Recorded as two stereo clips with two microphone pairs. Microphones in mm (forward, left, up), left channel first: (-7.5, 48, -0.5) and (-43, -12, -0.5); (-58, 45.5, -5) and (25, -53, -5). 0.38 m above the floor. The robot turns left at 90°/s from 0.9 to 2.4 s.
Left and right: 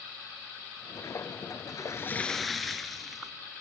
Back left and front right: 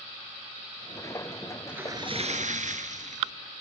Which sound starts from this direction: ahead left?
A splash, at 1.7 s.